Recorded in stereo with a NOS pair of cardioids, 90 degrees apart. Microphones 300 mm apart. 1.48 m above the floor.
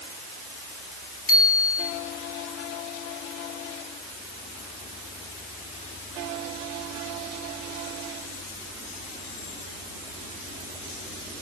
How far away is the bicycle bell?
About 9 m.